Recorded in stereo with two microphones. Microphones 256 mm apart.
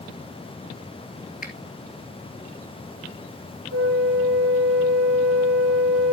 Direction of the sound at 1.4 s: 35° left (ahead or behind).